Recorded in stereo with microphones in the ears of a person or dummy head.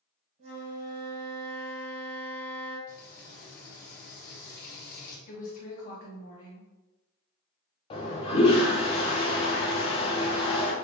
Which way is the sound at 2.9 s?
45° left (ahead or behind).